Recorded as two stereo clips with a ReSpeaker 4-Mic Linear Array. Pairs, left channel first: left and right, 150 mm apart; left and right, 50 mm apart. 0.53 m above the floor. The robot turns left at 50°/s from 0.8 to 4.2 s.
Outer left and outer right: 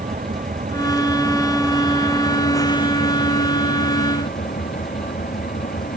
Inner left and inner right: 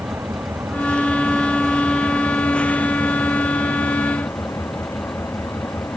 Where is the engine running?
115° right; by 6.0 s 75° left.